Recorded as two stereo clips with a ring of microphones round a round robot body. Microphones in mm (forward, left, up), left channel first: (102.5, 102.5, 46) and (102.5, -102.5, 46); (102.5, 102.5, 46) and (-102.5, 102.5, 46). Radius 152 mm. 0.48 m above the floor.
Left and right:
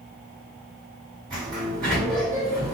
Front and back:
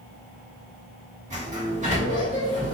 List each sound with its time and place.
1.3 s a sliding door: 150° right, 1.5 m